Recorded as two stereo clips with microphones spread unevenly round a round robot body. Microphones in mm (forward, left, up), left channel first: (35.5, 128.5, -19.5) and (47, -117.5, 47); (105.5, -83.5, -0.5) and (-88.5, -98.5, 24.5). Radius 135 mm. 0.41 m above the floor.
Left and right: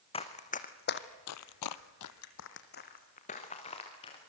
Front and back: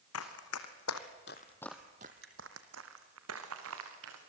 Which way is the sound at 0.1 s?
20° left.